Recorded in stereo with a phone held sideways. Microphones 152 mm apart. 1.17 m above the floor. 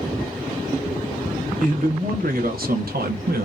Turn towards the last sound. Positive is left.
turn(degrees=-80)